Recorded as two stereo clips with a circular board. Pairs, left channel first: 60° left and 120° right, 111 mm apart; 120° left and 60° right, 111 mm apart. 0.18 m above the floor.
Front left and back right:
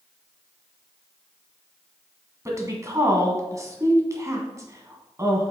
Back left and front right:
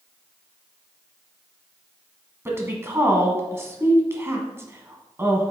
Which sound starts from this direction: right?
A woman speaking, at 2.5 s.